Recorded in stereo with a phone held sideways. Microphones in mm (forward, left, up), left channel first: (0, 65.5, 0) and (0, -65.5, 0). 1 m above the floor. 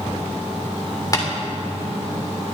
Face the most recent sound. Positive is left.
turn(degrees=30)  # may be behind; listen again after turning